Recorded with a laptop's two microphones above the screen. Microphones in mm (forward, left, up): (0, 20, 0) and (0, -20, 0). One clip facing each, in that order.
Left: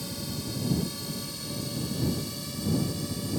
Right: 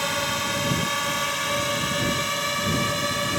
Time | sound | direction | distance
0.0 | a drone | 70° right (ahead or behind) | ?